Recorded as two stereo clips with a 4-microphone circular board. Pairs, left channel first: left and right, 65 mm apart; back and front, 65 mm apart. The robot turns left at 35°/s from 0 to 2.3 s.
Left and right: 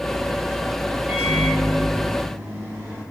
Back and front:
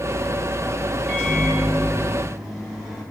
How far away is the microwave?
About 0.9 m.